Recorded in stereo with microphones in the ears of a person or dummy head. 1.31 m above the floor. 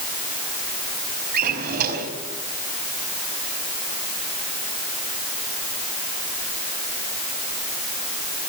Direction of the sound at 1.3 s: 50° right (ahead or behind).